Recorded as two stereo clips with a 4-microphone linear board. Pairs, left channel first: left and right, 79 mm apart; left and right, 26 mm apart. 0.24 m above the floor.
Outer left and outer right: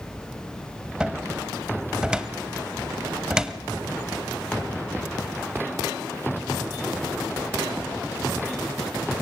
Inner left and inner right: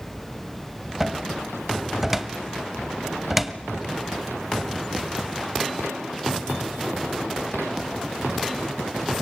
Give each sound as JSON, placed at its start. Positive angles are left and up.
{"t": 1.0, "sound": "a cupboard door", "side_deg": -10, "distance_m": 0.9}